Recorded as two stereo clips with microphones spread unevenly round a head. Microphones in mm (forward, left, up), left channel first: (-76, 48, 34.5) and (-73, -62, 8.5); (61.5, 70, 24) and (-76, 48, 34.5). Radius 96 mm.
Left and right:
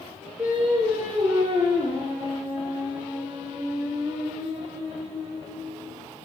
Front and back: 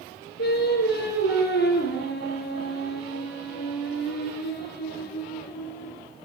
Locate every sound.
0.4 s singing: straight ahead, 6.5 m